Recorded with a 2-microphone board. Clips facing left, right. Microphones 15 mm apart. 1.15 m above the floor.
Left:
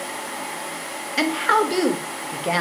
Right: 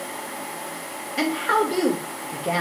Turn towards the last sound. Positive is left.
turn(degrees=45)  # may be behind; listen again after turning